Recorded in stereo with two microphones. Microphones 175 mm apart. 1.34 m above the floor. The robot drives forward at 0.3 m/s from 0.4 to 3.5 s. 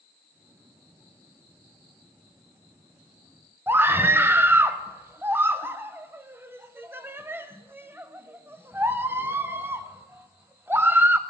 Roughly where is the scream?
Centre.